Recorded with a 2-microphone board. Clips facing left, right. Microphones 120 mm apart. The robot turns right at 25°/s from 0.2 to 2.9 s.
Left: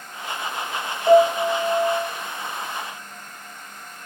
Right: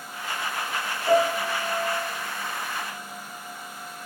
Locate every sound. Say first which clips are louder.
1.1 s a piano: left 7 dB; 65° left (ahead or behind), 1.6 m